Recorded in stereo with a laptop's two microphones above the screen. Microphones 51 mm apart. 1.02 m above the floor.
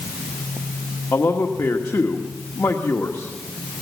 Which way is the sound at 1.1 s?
70° left (ahead or behind).